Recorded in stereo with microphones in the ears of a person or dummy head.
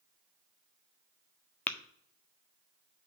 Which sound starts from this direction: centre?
Tapping, at 1.7 s.